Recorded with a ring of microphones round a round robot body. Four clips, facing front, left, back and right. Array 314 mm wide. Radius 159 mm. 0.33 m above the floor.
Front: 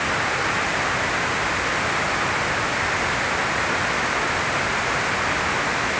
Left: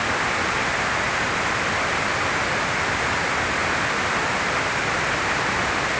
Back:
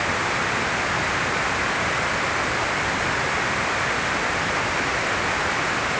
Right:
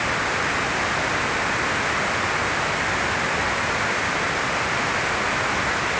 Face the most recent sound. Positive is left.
No sound to turn to.